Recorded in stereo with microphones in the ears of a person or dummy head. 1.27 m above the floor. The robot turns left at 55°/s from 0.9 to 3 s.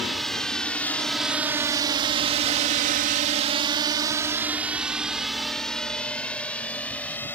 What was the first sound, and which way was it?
A drone, centre (ahead or behind).